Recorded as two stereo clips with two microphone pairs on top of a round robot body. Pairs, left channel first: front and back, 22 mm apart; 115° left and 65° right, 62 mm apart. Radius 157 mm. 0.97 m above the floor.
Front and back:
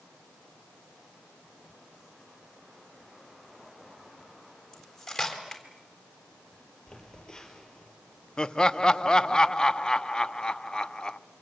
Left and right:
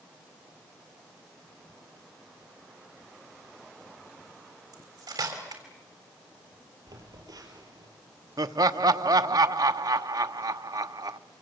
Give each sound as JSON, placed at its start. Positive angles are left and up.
{"t": 4.7, "sound": "cutlery clinking", "azimuth_deg": -70, "distance_m": 3.5}
{"t": 6.9, "sound": "a phone buzzing", "azimuth_deg": -55, "distance_m": 5.0}
{"t": 8.4, "sound": "laughter", "azimuth_deg": -50, "distance_m": 0.9}